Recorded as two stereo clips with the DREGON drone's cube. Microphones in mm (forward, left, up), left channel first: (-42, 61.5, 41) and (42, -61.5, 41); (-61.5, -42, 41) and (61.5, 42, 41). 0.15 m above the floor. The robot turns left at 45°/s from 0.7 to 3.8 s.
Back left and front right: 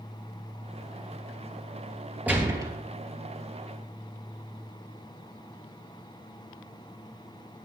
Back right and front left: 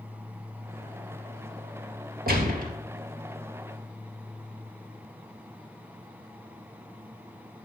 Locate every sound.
2.3 s a gunshot: 25° left, 3 m; by 2.7 s 5° left, 3 m